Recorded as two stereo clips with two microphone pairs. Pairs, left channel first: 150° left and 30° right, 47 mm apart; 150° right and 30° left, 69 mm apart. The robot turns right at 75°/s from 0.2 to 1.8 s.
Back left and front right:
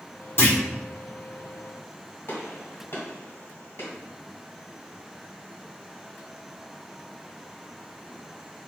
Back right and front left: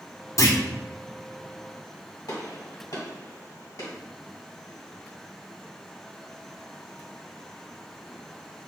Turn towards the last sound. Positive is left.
turn(degrees=-170)